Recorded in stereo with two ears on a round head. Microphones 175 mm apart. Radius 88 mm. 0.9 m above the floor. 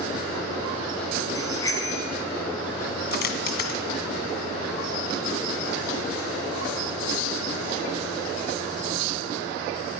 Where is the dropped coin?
55° left (ahead or behind), 1.7 m.